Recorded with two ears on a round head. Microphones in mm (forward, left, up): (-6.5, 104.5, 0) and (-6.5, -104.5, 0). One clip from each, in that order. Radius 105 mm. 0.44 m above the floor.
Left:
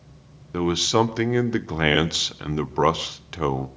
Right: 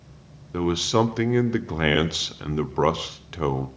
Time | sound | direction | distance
0.5 | a man speaking | 15° left (ahead or behind) | 0.8 m